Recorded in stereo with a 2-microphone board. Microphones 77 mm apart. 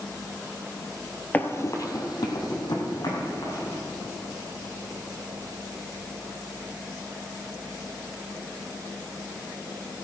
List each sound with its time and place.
1.3 s running footsteps: 20° left (ahead or behind), 1.1 m; by 3.8 s 75° left (ahead or behind), 4.5 m